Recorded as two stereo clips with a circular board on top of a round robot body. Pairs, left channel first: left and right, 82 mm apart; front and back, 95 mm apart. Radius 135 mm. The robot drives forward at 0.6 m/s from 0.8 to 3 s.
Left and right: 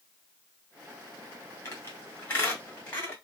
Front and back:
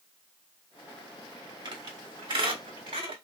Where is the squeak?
150° left, 1.6 m; by 3.1 s 160° left, 2.5 m.